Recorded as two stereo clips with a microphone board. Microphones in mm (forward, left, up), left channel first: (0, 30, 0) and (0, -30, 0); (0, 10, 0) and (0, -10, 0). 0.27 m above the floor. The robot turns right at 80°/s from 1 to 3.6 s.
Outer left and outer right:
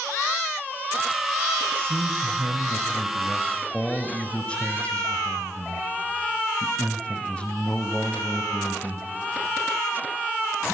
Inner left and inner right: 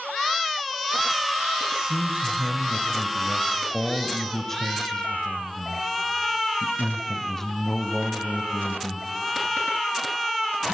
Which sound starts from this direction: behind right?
A man speaking, at 1.7 s.